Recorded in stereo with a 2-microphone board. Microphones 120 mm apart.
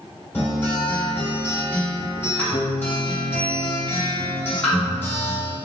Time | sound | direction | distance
0.3 | a guitar | 20° left (ahead or behind) | 1.6 m